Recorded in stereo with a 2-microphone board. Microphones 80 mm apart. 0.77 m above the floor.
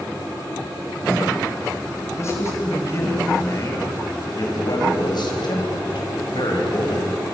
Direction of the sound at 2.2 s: 35° left (ahead or behind).